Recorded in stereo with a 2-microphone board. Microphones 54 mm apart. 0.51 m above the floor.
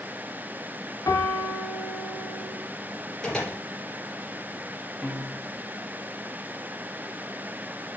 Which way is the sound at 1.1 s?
80° left.